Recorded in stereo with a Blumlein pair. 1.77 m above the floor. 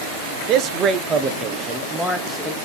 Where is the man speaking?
35° right, 1.2 m; by 2.5 s 5° left, 1.9 m.